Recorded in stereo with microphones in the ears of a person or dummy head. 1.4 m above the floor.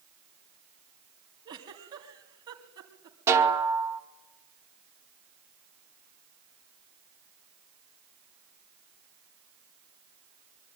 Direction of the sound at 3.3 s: 20° right (ahead or behind).